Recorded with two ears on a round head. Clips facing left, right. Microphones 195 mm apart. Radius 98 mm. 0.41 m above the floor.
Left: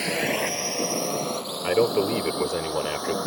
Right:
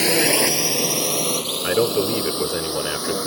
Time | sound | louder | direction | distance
0.0 | a drone | right 7 dB | 60° right (ahead or behind) | ?
1.6 | a man speaking | right 1 dB | 10° right (ahead or behind) | ?